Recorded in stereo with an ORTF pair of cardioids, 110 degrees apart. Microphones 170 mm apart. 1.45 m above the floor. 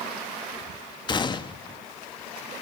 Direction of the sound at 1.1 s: 25° left.